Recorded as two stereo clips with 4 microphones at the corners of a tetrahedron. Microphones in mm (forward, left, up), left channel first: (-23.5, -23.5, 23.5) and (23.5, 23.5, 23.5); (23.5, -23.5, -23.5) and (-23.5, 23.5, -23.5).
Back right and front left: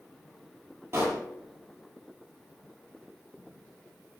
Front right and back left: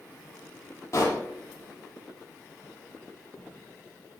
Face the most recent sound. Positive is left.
turn(degrees=-5)